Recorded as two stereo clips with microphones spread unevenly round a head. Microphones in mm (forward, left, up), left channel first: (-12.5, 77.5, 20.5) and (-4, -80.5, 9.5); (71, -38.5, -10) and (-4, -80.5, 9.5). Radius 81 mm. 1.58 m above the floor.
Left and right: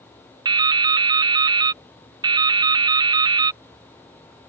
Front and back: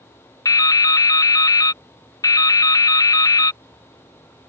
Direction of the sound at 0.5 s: 20° right.